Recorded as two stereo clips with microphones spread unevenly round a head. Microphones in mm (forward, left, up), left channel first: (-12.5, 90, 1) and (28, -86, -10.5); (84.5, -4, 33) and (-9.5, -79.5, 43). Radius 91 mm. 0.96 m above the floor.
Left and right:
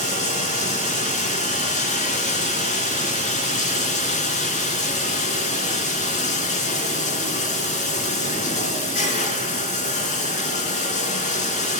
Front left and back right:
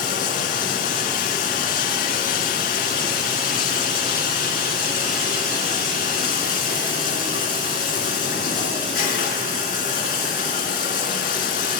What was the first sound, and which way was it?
Running water, 55° left.